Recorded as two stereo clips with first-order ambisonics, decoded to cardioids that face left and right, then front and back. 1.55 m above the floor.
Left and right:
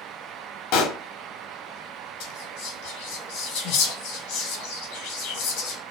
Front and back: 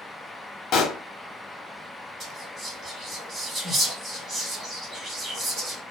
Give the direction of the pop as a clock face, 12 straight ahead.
10 o'clock.